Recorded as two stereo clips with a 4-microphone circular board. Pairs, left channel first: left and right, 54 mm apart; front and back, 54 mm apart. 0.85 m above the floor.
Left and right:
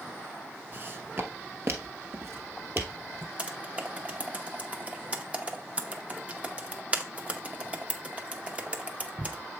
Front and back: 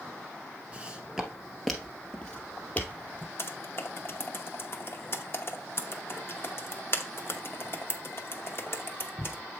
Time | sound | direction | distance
0.7 | footsteps | 125° right | 1.1 m
3.4 | typing on a keyboard | 30° right | 0.8 m